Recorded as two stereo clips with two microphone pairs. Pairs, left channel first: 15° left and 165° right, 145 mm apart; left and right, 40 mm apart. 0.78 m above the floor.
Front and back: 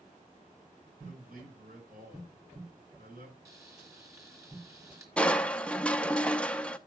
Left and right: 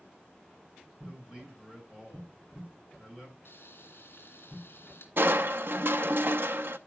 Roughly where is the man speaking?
Behind.